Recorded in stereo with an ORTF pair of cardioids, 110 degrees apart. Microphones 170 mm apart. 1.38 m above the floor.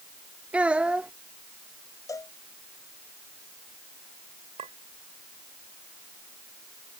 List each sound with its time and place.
0.5 s a child speaking: 5° right
2.1 s a cowbell: 20° left
4.6 s a clink: 40° right